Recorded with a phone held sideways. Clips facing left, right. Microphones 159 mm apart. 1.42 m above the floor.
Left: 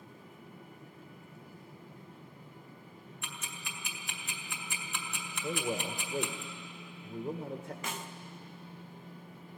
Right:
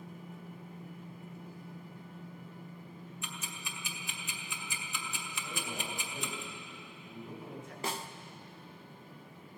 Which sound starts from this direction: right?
A snare drum, at 7.8 s.